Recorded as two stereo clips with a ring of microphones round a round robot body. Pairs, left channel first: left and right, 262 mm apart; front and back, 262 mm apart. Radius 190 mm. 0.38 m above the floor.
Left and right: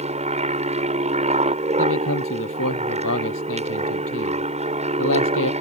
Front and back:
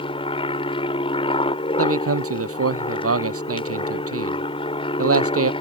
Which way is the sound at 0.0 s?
55° right.